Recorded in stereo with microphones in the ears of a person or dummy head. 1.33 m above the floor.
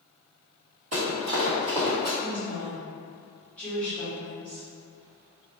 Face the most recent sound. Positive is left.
turn(degrees=5)  # may be behind; listen again after turning